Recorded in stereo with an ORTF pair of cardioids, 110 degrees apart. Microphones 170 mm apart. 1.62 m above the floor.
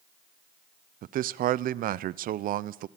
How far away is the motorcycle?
I don't hear a motorcycle.